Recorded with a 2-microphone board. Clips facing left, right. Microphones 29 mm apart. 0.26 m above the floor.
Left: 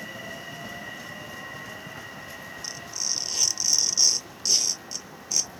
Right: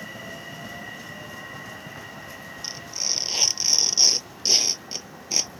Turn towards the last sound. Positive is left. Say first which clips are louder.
# right 3 dB
turn(degrees=-35)  # may be behind; listen again after turning